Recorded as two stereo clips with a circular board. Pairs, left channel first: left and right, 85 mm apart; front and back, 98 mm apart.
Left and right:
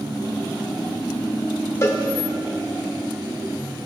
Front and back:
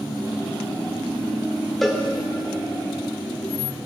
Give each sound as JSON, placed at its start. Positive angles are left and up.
{"t": 1.8, "sound": "a cowbell", "azimuth_deg": 85, "distance_m": 1.0}